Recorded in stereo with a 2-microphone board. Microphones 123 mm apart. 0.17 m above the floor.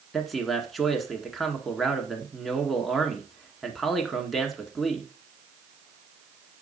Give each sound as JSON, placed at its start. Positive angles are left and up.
{"t": 0.1, "sound": "a man speaking", "side_deg": 0, "distance_m": 1.6}